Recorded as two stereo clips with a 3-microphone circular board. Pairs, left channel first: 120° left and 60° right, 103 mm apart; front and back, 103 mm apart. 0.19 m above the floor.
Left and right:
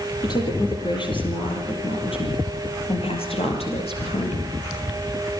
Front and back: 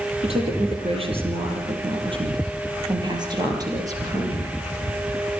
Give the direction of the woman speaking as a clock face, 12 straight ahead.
6 o'clock.